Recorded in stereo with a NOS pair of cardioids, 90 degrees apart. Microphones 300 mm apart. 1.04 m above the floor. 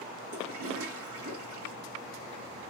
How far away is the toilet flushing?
About 1.5 m.